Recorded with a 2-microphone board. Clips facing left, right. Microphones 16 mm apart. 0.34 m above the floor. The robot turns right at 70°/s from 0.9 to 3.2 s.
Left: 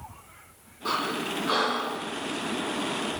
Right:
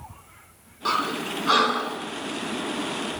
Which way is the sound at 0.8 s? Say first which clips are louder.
Right 3 dB; 50° right (ahead or behind).